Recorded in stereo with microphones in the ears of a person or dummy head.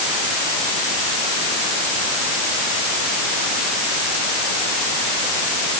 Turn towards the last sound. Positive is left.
No sound to turn to.